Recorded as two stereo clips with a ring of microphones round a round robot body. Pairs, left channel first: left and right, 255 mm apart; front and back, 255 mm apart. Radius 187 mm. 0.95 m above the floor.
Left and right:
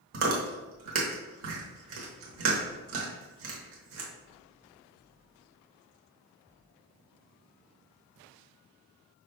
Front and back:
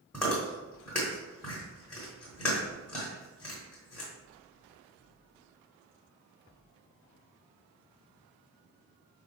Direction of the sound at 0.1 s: 85° right.